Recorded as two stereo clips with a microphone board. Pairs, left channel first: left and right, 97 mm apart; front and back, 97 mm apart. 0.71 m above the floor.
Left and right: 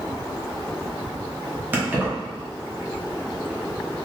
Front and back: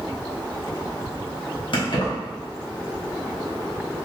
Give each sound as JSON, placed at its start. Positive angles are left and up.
{"t": 1.7, "sound": "keys jangling", "azimuth_deg": -20, "distance_m": 1.0}